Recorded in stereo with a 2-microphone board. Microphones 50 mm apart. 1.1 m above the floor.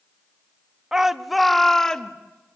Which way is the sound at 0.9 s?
10° right (ahead or behind).